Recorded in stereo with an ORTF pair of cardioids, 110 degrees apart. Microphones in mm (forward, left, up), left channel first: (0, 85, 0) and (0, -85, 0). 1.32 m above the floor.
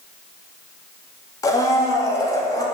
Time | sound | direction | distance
1.4 | a blender | 20° left | 3 m